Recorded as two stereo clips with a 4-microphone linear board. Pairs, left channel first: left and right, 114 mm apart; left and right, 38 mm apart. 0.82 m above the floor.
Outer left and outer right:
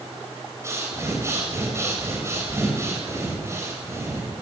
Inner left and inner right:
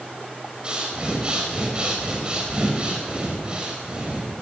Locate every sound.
0.6 s breathing: 25° right (ahead or behind), 5 m